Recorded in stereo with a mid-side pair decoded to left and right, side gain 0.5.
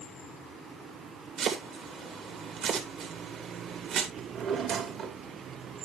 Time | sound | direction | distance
1.4 | chopping | 65° right | 2.5 m
4.2 | a drawer | 60° right | 2.5 m